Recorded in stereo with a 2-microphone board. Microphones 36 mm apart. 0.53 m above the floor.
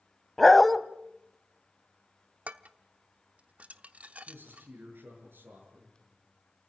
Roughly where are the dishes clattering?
Right.